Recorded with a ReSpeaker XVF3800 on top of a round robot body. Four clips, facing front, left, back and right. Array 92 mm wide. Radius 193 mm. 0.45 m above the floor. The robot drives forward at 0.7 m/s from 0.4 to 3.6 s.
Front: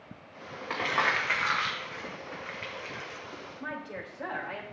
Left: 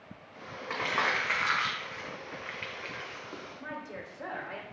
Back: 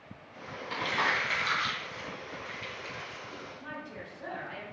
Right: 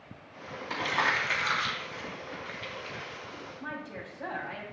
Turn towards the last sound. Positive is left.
turn(degrees=20)